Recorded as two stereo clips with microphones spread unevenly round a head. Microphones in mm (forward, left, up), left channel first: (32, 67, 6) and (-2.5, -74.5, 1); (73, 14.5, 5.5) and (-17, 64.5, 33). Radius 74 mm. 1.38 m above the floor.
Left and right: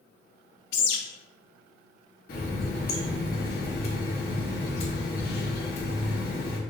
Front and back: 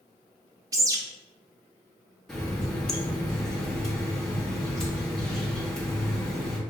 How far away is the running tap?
About 1.0 m.